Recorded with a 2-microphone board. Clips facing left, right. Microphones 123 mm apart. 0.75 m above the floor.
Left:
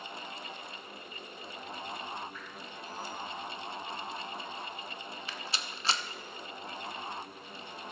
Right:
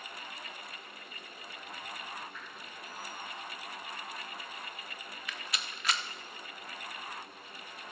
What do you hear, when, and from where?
2.3 s dripping: 75° right (ahead or behind), 5 m
5.3 s a rattle: 30° left (ahead or behind), 0.5 m